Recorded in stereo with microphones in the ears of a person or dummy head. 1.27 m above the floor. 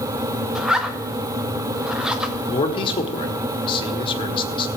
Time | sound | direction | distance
0.6 | a zipper | 5° right (ahead or behind) | 0.7 m
2.5 | a man speaking | 30° left (ahead or behind) | 1.5 m